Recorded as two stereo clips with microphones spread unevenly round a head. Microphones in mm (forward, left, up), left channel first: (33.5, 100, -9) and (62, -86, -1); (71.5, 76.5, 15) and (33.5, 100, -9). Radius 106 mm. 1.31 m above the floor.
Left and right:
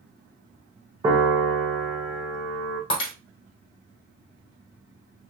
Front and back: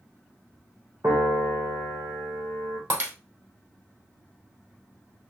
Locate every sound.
1.0 s a piano: 155° right, 1.2 m
2.9 s breaking glass: 95° left, 2.5 m